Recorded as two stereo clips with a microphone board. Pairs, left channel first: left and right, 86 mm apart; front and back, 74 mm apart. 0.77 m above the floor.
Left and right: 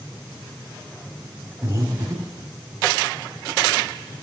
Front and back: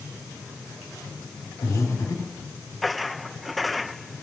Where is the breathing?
40° right, 1.9 m.